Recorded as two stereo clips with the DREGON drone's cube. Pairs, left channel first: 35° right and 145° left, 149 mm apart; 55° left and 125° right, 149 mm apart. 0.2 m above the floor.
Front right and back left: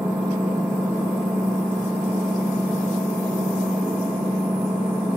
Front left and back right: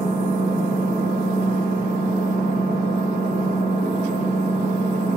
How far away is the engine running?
About 6.5 m.